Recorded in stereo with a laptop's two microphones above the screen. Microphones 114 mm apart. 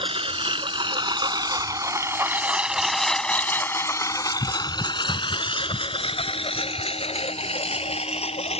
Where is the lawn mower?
60° right (ahead or behind); by 8.6 s 70° left (ahead or behind).